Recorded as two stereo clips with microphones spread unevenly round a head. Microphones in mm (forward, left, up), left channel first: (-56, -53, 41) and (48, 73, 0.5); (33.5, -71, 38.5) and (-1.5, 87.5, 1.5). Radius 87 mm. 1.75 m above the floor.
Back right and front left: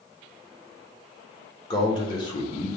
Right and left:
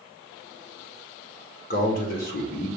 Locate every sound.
1.7 s a man speaking: 80° right, 1.0 m